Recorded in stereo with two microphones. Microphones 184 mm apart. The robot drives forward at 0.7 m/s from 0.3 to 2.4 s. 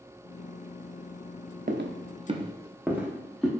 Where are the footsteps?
55° right (ahead or behind), 0.7 m; by 3.5 s centre (ahead or behind), 1.7 m.